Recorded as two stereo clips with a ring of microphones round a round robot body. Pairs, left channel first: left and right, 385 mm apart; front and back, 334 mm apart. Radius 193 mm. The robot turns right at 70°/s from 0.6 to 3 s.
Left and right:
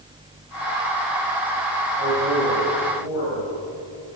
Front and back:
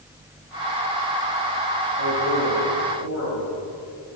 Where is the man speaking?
20° right, 4.5 m; by 3.5 s 50° left, 4.5 m.